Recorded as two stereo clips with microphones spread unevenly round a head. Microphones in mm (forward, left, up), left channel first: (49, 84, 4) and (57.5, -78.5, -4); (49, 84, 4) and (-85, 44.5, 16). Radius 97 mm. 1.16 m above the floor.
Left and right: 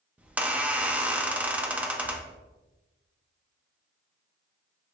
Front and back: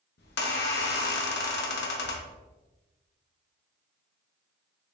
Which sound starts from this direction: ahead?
A squeak, at 0.2 s.